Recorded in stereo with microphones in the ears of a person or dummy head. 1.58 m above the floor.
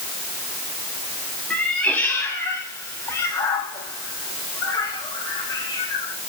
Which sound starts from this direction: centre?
A cat meowing, at 1.5 s.